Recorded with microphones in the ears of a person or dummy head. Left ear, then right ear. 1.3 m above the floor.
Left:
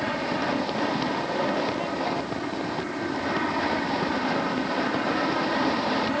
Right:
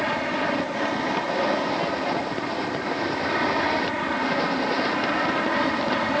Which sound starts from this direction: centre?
An aircraft, at 0.0 s.